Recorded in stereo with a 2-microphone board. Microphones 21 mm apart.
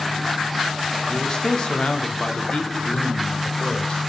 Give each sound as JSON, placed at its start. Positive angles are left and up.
{"t": 1.1, "sound": "a man speaking", "side_deg": 40, "distance_m": 1.0}